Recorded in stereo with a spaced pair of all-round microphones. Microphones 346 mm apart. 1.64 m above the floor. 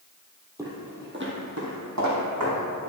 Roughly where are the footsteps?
Centre.